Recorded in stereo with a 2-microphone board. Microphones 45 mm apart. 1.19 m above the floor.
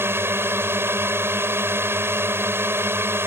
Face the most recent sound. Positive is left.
turn(degrees=-60)  # may be behind; listen again after turning